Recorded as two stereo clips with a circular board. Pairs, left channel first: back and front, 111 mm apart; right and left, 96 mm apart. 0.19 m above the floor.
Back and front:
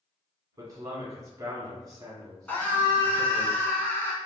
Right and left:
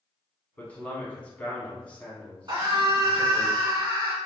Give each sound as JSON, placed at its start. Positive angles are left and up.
{"t": 0.6, "sound": "a man speaking", "azimuth_deg": -25, "distance_m": 1.1}
{"t": 2.5, "sound": "a scream", "azimuth_deg": 110, "distance_m": 1.5}